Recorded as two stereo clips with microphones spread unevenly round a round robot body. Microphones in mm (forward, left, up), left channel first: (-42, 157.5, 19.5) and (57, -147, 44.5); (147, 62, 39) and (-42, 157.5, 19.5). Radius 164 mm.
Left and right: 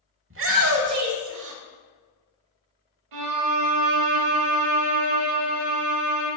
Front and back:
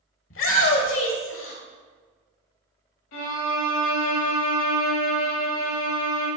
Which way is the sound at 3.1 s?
55° right.